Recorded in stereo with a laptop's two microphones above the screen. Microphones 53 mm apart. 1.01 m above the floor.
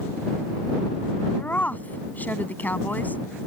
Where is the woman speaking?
35° left (ahead or behind).